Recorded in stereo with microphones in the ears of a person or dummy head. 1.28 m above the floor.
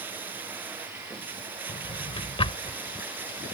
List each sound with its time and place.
0.0 s running water: 15° right (ahead or behind)
1.7 s a drawer: 30° left (ahead or behind)